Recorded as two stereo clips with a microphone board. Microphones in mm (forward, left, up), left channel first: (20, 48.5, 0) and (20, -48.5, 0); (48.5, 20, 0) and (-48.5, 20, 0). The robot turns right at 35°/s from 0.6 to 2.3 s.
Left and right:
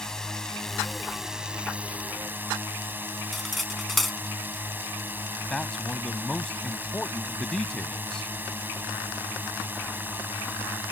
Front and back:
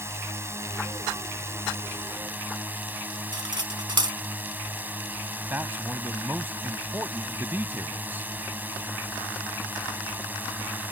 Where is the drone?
165° left; by 10.9 s 135° right.